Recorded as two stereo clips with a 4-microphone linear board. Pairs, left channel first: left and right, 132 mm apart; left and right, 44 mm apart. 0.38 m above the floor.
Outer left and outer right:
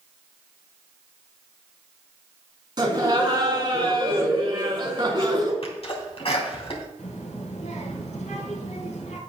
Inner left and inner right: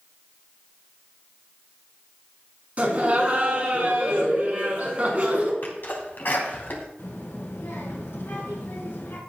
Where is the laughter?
35° right (ahead or behind), 3.5 m.